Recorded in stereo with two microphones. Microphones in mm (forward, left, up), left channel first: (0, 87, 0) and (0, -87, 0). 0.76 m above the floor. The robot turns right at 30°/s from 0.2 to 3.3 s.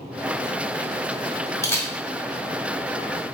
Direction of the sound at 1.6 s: 15° left (ahead or behind).